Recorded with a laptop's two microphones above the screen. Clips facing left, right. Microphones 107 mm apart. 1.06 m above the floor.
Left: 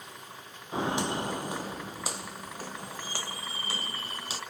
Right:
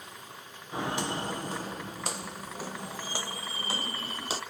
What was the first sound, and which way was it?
Footsteps, 25° left (ahead or behind).